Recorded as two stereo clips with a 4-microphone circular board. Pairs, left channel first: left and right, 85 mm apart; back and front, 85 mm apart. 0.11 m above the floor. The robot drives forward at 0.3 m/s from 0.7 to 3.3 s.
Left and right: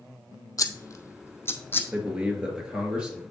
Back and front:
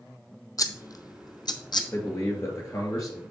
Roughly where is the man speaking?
Behind.